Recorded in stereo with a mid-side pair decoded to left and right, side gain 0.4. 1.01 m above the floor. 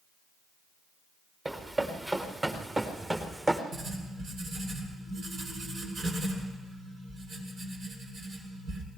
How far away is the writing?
About 7 m.